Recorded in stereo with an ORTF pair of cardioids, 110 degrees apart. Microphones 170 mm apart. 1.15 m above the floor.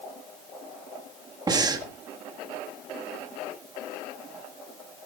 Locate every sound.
1.5 s breathing: 25° right, 1.7 m